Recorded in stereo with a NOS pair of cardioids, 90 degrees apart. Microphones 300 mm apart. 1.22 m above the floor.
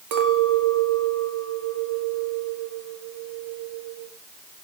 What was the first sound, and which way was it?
A clink, 70° right.